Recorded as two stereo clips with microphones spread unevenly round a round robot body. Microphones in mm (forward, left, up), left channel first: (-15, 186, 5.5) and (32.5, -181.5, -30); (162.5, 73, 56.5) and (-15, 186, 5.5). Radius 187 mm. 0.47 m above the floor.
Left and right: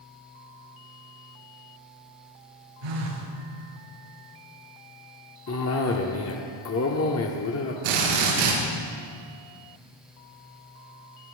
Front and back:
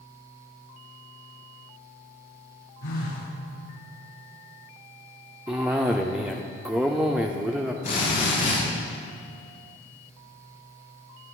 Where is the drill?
100° right, 6.5 m.